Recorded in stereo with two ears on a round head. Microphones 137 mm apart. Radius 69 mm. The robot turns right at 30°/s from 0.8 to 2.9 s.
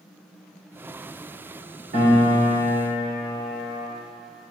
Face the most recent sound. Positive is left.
turn(degrees=-25)  # may be behind; listen again after turning